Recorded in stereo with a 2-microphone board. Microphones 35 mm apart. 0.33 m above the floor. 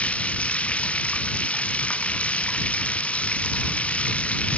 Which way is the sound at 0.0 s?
40° left (ahead or behind).